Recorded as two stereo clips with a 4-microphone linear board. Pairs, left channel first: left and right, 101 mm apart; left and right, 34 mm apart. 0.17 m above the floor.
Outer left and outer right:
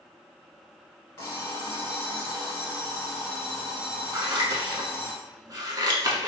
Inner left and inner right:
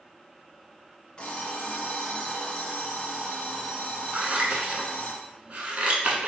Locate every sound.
1.2 s an alarm clock: 25° left (ahead or behind), 1.3 m
4.1 s scissors: 40° right (ahead or behind), 0.7 m